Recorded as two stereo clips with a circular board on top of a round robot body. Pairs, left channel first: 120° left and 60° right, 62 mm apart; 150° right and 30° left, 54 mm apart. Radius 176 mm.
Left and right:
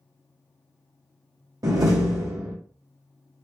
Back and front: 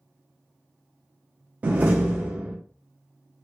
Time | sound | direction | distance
1.6 | a door slam | 35° right | 0.5 m